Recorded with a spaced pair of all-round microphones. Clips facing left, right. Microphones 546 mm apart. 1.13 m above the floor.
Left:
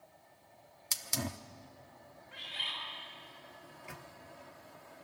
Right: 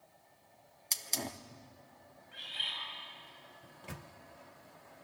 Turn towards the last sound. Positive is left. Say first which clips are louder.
# right 3 dB
turn(degrees=-55)  # may be behind; listen again after turning